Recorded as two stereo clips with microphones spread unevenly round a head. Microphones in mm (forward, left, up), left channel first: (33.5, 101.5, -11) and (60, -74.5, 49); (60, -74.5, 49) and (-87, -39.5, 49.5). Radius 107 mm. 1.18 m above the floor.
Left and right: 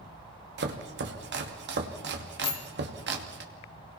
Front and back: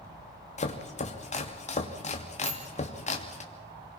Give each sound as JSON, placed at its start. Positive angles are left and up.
{"t": 0.6, "sound": "chopping", "azimuth_deg": -55, "distance_m": 2.5}
{"t": 2.4, "sound": "a bicycle bell", "azimuth_deg": 105, "distance_m": 3.0}